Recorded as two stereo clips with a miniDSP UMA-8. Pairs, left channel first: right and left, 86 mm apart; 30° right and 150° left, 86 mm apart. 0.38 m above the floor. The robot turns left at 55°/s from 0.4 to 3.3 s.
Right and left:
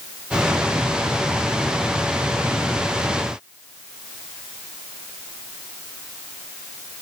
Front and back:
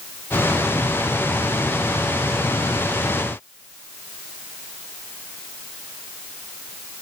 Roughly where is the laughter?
I don't hear laughter.